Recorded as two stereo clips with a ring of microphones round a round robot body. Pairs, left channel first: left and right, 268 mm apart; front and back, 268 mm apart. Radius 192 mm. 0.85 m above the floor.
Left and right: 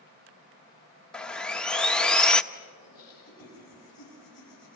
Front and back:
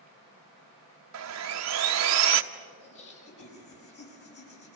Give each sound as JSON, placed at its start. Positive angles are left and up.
{"t": 1.1, "sound": "sawing", "azimuth_deg": 175, "distance_m": 1.1}
{"t": 2.8, "sound": "laughter", "azimuth_deg": 10, "distance_m": 6.5}